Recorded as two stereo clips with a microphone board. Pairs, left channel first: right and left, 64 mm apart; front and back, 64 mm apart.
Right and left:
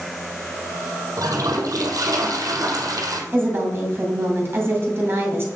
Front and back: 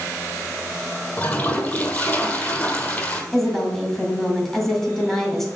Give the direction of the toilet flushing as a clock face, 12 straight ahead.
10 o'clock.